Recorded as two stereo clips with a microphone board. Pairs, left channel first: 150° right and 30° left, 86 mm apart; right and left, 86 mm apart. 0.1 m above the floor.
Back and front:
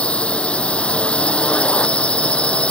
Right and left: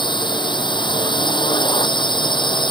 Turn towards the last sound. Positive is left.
turn(degrees=-75)